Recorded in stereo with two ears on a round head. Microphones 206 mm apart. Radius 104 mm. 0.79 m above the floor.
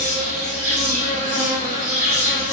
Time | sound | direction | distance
0.0 | an insect | 40° right (ahead or behind) | 0.9 m